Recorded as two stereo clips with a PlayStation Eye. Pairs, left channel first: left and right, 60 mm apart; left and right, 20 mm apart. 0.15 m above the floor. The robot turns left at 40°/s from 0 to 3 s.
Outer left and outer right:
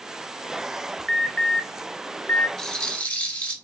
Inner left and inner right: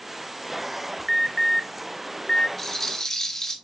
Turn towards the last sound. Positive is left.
turn(degrees=20)  # may be behind; listen again after turning